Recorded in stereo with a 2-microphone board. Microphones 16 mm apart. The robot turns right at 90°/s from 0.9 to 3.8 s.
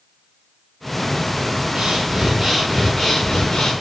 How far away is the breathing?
About 6 m.